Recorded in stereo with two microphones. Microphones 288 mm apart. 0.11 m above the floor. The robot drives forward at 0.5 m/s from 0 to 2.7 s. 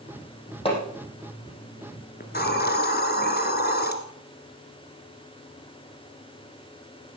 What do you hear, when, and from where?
0.7 s hammering: 20° left (ahead or behind), 4.5 m
2.2 s a hiss: 35° left (ahead or behind), 1.5 m